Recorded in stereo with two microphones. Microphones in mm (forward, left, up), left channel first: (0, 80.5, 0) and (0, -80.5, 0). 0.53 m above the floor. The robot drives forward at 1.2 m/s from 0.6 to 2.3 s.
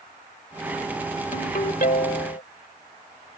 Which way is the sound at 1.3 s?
50° left (ahead or behind).